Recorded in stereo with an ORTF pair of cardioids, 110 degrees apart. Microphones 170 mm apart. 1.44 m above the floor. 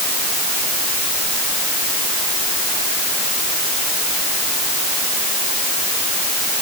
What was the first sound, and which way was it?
Only background noise.